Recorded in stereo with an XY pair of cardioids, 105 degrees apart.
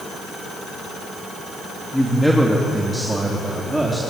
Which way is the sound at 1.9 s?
5° left.